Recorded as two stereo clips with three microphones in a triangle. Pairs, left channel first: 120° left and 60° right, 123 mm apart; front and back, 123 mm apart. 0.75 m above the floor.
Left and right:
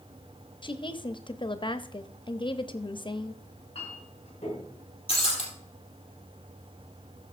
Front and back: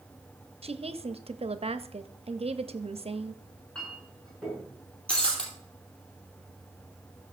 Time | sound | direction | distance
0.6 | a woman speaking | 160° left | 0.8 m
3.4 | a clink | 85° left | 6.5 m
5.1 | breaking glass | 80° left | 3.5 m